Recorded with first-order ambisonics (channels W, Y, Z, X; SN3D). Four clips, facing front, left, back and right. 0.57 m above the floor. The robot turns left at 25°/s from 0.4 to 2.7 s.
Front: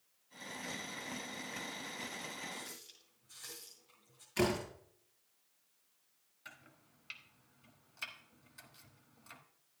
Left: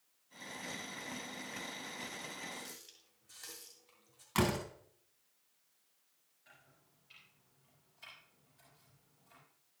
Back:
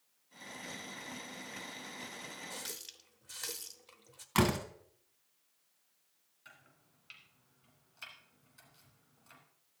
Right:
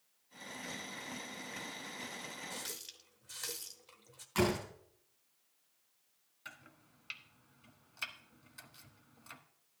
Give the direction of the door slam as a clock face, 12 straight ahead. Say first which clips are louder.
Right 1 dB, back 3 dB; 7 o'clock.